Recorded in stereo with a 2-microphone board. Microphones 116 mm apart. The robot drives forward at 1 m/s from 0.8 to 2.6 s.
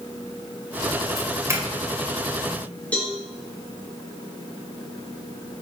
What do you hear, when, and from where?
1.2 s a doorbell: 25° right (ahead or behind), 1.5 m; by 2.6 s 15° right (ahead or behind), 2 m
2.9 s a cowbell: 10° left (ahead or behind), 3.5 m